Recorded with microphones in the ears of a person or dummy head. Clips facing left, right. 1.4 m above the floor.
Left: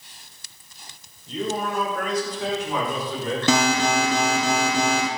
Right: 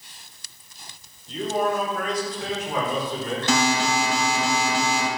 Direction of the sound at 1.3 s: 75° left (ahead or behind).